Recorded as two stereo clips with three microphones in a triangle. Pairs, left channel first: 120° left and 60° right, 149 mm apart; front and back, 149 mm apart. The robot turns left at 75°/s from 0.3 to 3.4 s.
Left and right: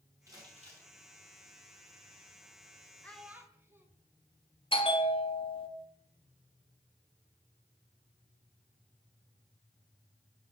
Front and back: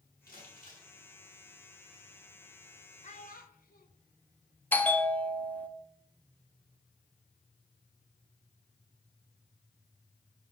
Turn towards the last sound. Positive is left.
turn(degrees=75)